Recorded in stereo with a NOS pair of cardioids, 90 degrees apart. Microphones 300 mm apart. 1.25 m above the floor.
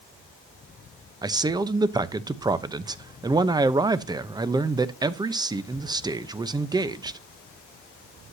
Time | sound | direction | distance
1.2 | a man speaking | 15° right | 0.8 m